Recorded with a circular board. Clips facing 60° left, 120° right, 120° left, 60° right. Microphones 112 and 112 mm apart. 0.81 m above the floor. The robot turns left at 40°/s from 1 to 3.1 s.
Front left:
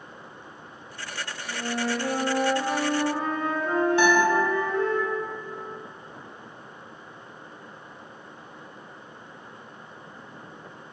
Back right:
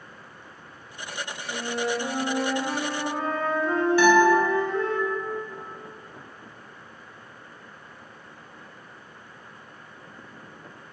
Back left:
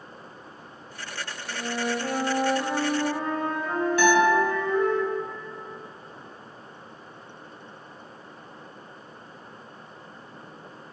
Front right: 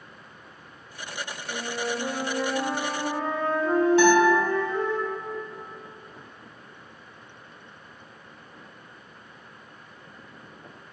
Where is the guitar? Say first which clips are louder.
Back right 5 dB, back left 1 dB; 5° right, 1.1 m.